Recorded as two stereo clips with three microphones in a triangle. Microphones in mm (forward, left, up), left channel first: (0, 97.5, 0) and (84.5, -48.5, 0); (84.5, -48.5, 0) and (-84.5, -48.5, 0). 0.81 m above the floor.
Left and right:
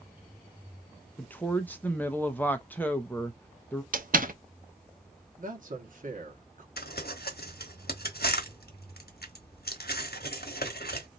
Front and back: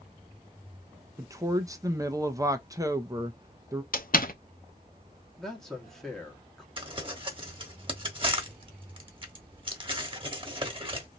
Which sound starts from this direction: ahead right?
A door slam, at 3.9 s.